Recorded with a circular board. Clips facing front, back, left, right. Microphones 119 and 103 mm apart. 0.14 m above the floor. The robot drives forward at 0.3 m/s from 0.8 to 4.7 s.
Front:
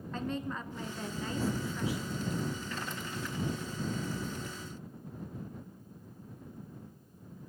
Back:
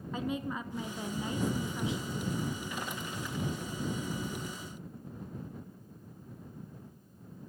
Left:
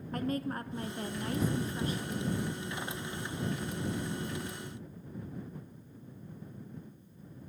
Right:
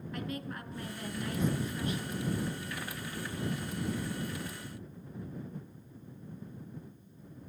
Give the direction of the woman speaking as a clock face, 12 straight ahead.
9 o'clock.